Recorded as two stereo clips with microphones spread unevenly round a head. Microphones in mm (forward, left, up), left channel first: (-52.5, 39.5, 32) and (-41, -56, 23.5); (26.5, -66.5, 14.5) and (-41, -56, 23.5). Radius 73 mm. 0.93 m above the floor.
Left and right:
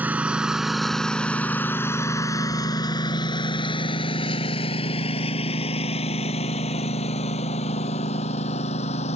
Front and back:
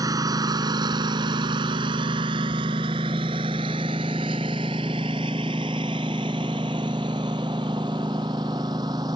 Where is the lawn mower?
160° right; by 9.2 s 110° left.